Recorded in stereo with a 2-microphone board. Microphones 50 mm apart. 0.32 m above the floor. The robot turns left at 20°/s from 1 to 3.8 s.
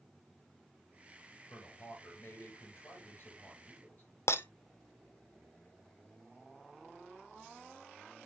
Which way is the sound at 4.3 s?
65° left (ahead or behind).